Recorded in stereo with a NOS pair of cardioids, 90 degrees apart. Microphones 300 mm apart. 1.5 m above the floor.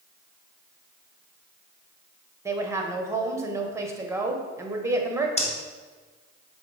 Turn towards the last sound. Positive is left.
turn(degrees=25)